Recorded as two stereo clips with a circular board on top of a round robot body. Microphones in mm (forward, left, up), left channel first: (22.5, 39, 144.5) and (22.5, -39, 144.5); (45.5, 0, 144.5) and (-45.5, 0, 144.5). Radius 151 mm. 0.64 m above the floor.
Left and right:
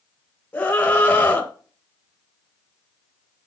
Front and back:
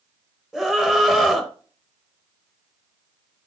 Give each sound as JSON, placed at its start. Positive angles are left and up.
{"t": 0.5, "sound": "a scream", "azimuth_deg": 105, "distance_m": 1.2}